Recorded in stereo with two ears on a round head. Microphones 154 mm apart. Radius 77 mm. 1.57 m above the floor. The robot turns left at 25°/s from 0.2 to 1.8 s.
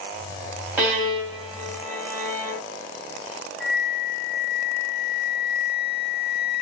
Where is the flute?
Centre (ahead or behind), 1.5 m.